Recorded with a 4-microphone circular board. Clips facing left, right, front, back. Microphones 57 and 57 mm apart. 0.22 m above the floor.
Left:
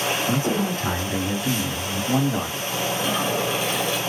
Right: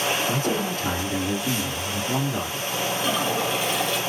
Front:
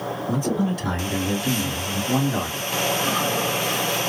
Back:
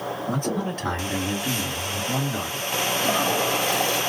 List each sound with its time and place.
0.3 s a man speaking: 165° left, 2 m; by 2.7 s 50° left, 1.9 m
3.0 s a toilet flushing: straight behind, 2.5 m